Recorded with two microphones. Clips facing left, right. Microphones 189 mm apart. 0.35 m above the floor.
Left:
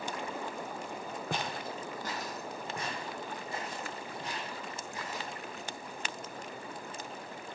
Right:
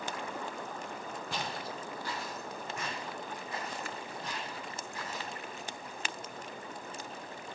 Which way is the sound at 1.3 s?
60° left (ahead or behind).